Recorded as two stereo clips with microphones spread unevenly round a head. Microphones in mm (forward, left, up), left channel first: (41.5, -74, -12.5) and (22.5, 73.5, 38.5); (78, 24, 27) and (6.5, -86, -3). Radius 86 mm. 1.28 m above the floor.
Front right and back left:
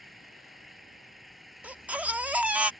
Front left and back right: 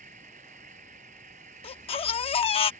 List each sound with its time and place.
0.0 s an engine running: 175° right
1.6 s a baby crying: 25° left